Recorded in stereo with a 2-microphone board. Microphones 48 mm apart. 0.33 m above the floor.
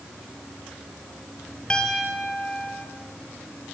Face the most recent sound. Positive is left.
turn(degrees=20)  # may be behind; listen again after turning